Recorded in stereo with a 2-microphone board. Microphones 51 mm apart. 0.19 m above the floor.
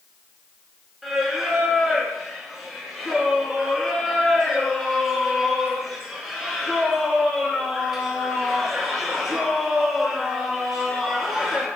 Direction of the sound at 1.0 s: 5° right (ahead or behind).